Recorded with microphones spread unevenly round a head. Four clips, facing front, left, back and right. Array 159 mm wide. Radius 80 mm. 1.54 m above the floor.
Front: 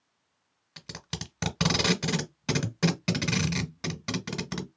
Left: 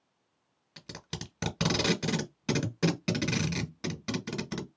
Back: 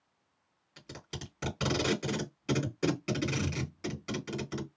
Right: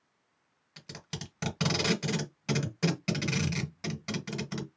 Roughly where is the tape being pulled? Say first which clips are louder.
Left 1 dB, front 3 dB; ahead.